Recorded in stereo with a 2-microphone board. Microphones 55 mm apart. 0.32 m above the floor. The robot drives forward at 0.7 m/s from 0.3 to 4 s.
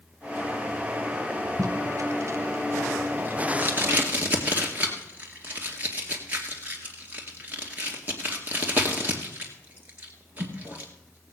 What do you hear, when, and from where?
1.6 s tape being pulled: 70° right (ahead or behind), 1.1 m; by 11.3 s 25° right (ahead or behind), 2.5 m